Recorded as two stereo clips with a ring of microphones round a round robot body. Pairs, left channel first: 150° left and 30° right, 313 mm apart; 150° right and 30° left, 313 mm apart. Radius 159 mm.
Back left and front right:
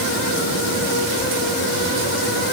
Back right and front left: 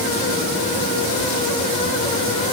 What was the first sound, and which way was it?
Only background noise.